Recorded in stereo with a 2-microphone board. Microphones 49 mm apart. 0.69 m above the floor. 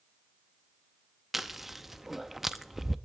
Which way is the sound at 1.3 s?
5° right (ahead or behind).